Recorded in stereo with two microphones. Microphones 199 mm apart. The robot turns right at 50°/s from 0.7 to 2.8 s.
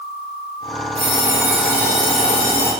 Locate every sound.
0.9 s an alarm clock: 35° right, 1.8 m; by 2.7 s 55° left, 1.8 m